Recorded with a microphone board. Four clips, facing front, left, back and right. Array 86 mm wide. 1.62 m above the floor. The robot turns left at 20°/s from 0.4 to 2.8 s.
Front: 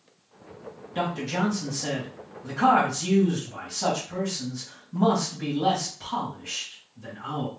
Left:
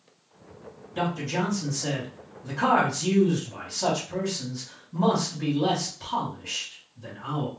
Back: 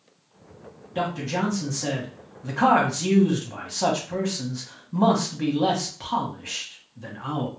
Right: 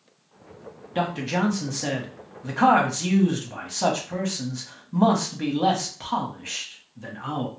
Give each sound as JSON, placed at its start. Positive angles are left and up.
{"t": 0.9, "sound": "a man speaking", "azimuth_deg": -90, "distance_m": 1.2}